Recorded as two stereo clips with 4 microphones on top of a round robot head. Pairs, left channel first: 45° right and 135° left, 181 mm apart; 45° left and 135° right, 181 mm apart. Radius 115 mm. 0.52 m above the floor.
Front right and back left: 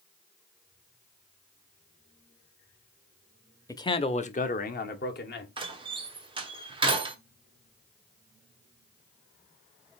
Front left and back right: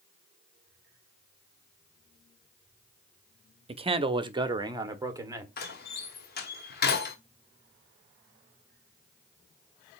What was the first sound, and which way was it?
A man speaking, 105° right.